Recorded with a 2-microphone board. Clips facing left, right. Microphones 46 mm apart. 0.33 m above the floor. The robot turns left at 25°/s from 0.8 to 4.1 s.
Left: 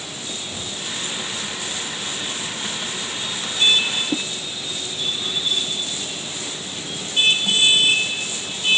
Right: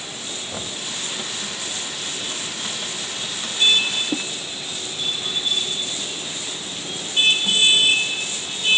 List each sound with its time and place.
0.5 s knocking: 40° right (ahead or behind), 1.4 m